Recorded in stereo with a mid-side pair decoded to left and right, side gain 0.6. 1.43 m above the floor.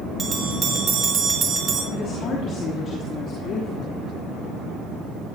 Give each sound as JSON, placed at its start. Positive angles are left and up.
{"t": 0.2, "sound": "a bell", "azimuth_deg": -35, "distance_m": 3.5}
{"t": 1.9, "sound": "a woman speaking", "azimuth_deg": 50, "distance_m": 3.0}